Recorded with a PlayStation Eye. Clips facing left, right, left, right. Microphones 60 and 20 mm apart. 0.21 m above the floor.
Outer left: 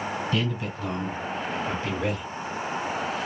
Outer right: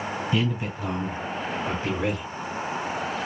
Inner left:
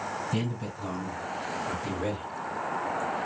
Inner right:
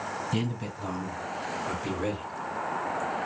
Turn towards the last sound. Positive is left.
turn(degrees=-15)  # may be behind; listen again after turning